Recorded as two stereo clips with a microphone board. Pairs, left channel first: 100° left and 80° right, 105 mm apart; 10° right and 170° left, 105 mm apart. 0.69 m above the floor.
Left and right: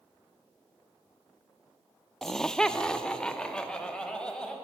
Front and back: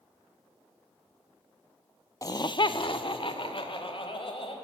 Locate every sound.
2.2 s laughter: 15° left, 0.5 m; by 4.5 s 20° left, 3.5 m